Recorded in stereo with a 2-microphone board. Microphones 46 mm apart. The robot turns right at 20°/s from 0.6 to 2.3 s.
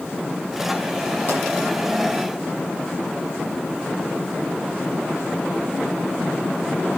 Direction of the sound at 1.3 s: 50° left (ahead or behind).